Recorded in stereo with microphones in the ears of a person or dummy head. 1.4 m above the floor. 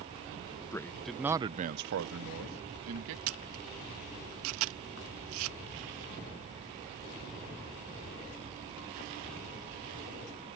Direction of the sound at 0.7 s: 15° left (ahead or behind).